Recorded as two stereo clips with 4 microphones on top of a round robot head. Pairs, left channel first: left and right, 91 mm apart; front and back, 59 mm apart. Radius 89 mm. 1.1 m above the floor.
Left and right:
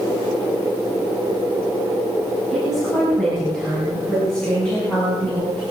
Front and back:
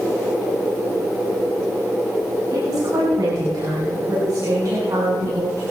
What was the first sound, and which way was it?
A woman speaking, straight behind.